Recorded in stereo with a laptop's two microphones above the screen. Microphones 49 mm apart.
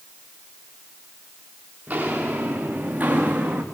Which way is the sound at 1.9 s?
35° right (ahead or behind).